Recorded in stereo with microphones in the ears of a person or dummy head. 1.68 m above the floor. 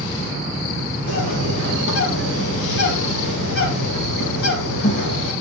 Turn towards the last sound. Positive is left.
turn(degrees=70)  # may be behind; listen again after turning